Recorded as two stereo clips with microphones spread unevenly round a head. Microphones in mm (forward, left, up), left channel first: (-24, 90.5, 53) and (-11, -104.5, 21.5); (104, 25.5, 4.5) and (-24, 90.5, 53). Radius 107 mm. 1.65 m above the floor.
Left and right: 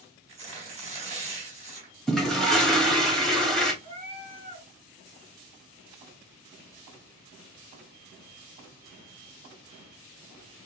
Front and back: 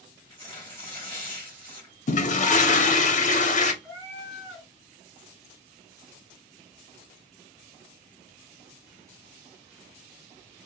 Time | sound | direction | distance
0.3 | tearing paper | 145° right | 3 m
2.1 | a toilet flushing | 5° left | 0.9 m
3.8 | a cat meowing | 135° right | 1.4 m